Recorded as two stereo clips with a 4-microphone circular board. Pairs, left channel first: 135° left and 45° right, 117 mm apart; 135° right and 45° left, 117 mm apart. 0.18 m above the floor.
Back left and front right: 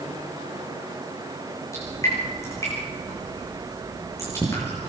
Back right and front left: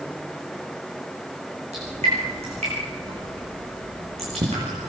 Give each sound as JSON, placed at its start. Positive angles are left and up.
{"t": 1.7, "sound": "dripping", "azimuth_deg": 70, "distance_m": 9.5}